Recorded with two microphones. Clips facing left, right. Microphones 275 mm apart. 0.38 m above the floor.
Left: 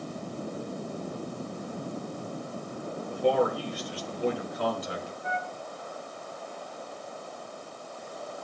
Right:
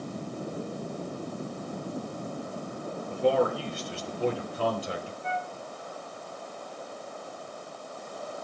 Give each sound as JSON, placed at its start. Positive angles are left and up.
{"t": 3.1, "sound": "a man speaking", "side_deg": -25, "distance_m": 5.5}
{"t": 5.2, "sound": "a flute", "side_deg": -30, "distance_m": 7.0}